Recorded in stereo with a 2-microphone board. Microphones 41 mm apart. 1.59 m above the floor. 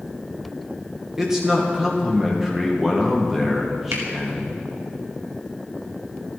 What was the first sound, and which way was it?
A man speaking, 10° right (ahead or behind).